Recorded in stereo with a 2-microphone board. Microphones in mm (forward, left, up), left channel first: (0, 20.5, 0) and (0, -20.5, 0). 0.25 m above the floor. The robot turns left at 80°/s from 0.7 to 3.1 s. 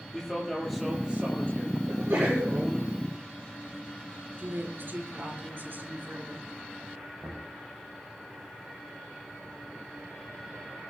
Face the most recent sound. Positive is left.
turn(degrees=5)  # may be behind; listen again after turning